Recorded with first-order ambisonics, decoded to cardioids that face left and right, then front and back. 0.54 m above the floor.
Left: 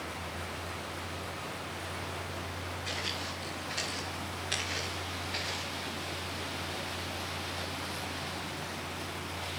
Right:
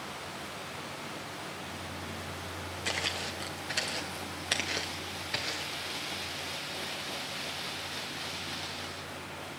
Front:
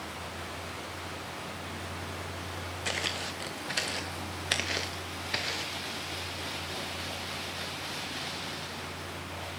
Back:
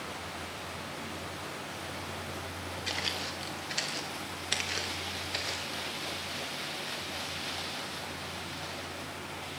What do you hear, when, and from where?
2.9 s footsteps: 35° right, 2 m; by 5.8 s 25° right, 4 m